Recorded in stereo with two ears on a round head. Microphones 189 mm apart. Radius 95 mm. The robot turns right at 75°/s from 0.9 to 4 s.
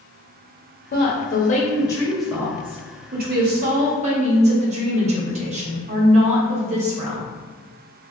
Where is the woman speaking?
80° left, 1.1 m; by 7.2 s 45° right, 1.1 m.